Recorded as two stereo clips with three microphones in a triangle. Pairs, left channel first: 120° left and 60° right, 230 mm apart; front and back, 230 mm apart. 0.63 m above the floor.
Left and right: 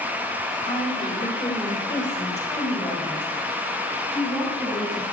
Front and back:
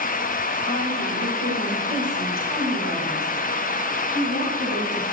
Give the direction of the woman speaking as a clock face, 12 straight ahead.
6 o'clock.